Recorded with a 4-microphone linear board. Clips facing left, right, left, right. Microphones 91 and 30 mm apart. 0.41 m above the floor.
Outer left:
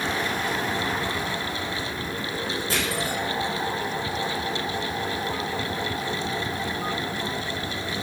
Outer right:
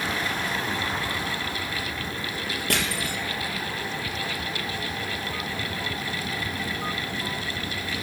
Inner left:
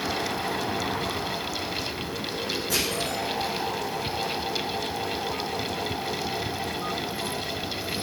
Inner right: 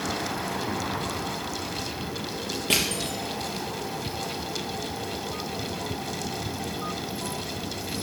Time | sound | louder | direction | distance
2.7 | crushing | even, inner right 4 dB | 70° right (ahead or behind) | 3.5 m